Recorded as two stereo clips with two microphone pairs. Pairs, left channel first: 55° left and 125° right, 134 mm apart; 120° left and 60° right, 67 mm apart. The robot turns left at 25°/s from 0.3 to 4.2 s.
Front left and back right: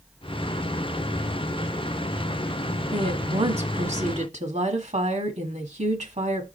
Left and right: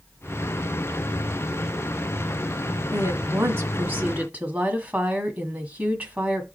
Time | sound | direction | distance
2.9 | a woman speaking | 90° right | 1.6 m